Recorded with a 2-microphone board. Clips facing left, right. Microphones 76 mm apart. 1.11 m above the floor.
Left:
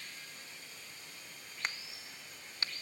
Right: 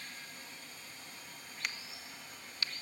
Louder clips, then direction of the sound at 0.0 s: Right 2 dB; 40° right (ahead or behind).